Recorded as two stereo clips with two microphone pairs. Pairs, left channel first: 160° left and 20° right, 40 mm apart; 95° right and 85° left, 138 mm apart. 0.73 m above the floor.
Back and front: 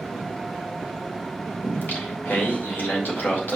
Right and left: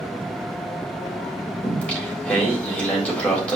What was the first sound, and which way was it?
Singing, 175° right.